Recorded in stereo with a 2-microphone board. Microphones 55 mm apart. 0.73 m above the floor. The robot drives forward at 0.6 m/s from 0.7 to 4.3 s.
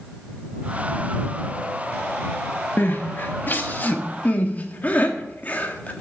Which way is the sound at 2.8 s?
45° left (ahead or behind).